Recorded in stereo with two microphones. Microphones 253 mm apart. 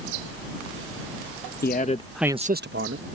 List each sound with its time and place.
1.6 s a man speaking: 40° left (ahead or behind); by 3.1 s 60° right (ahead or behind)